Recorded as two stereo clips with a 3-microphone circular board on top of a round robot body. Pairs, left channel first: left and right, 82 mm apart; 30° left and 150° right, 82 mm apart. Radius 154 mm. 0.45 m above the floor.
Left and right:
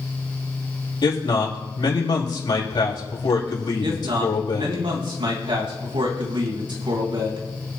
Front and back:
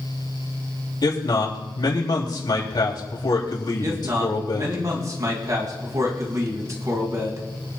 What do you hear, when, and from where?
1.0 s a man speaking: 60° left, 4 m
3.8 s a man speaking: 105° right, 3.5 m